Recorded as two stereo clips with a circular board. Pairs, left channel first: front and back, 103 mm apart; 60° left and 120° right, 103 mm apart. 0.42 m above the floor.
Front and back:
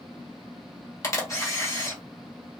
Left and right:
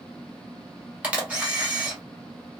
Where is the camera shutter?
50° right, 1.2 m.